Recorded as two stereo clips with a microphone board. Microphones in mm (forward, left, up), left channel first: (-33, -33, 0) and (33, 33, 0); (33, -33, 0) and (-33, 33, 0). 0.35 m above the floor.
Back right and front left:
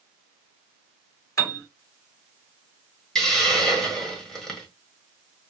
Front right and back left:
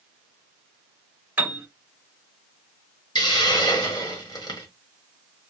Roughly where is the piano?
Behind.